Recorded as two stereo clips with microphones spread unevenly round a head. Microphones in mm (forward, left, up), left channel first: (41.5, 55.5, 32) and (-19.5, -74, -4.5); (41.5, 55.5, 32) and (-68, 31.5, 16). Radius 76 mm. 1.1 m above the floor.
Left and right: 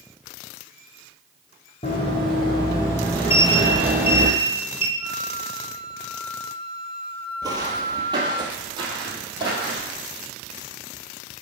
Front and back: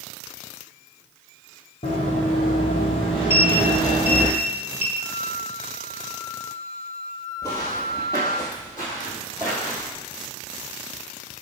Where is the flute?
35° left, 1.3 m.